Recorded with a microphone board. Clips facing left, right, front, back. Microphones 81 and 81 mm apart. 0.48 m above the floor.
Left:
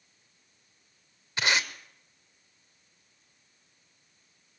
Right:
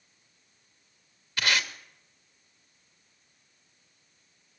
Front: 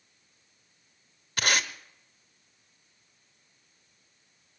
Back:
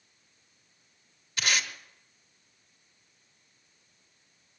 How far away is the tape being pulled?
About 1.0 m.